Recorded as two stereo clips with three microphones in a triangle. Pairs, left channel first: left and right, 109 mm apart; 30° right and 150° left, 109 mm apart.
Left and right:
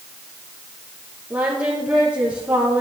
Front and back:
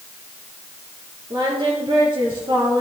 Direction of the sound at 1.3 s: 165° right.